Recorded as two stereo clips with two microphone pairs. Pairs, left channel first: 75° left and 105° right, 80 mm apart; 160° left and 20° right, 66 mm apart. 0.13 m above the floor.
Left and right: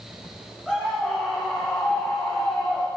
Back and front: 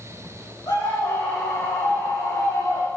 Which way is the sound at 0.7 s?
160° left.